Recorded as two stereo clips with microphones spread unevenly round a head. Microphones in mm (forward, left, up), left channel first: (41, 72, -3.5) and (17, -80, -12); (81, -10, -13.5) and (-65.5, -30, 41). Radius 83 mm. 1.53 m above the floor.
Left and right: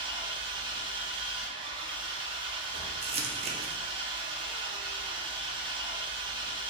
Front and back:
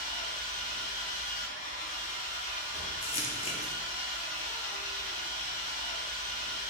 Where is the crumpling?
55° right, 0.7 m.